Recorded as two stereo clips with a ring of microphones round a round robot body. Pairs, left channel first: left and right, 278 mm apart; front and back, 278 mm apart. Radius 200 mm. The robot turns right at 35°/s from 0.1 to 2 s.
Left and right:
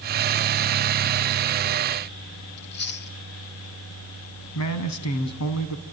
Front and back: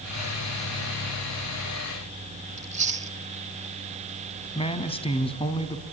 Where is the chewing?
125° left, 1.2 m.